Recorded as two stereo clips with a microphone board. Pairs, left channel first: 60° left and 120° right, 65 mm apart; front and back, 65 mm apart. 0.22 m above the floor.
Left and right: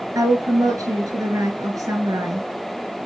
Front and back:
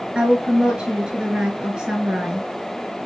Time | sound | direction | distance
0.1 | a woman speaking | 100° right | 2.5 m